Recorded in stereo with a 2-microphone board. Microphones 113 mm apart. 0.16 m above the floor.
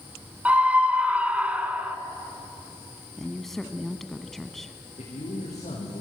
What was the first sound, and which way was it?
A scream, 15° right (ahead or behind).